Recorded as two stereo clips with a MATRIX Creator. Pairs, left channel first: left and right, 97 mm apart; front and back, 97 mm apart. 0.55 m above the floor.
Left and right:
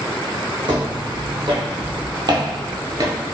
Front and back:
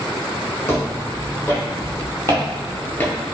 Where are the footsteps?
60° right, 1.8 m.